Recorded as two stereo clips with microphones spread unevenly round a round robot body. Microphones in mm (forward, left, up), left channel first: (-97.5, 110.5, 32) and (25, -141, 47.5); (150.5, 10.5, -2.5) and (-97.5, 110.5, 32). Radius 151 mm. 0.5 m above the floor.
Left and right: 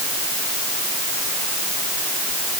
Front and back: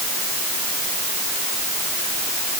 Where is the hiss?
I don't hear a hiss.